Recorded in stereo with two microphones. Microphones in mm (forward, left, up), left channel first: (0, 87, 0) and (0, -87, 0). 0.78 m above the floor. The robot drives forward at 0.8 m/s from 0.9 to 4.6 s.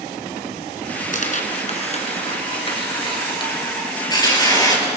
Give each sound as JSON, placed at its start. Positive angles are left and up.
{"t": 1.1, "sound": "tearing paper", "side_deg": 50, "distance_m": 2.0}